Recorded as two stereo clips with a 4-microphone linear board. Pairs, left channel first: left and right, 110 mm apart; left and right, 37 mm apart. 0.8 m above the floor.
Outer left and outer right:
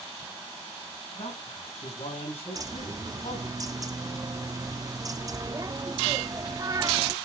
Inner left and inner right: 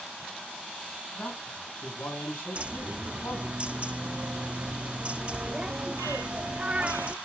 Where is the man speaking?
65° left (ahead or behind), 6.5 m.